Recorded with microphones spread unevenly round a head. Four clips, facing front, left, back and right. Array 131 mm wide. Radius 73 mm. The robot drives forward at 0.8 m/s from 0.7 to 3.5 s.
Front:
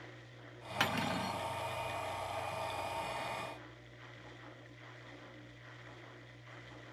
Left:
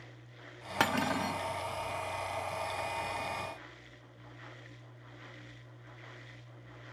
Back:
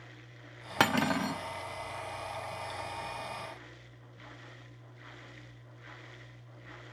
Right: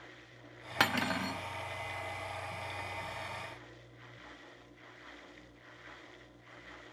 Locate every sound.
0.8 s cutlery clinking: 165° left, 1.1 m; by 1.4 s 170° left, 1.6 m